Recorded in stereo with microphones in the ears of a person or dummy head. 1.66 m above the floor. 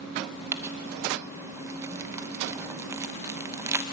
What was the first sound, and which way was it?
Crumpling, 15° right (ahead or behind).